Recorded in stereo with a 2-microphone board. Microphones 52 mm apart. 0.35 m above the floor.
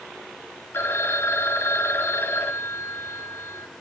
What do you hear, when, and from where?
0.7 s a phone ringing: 50° left (ahead or behind), 1.6 m